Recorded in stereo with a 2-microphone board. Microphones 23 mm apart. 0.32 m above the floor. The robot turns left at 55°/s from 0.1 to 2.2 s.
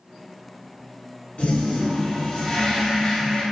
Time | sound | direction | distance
1.4 | a toilet flushing | 65° left | 1.0 m